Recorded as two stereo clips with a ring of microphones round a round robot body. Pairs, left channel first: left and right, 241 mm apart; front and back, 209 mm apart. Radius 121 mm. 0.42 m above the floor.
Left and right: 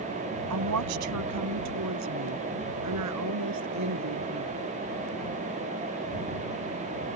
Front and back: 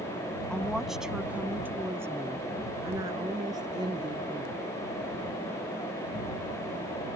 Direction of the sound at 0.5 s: 85° right.